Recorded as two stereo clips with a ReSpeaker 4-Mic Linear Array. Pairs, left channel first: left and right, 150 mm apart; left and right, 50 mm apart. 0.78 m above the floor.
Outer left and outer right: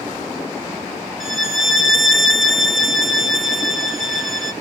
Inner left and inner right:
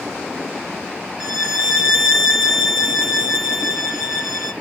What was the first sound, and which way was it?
A violin, centre (ahead or behind).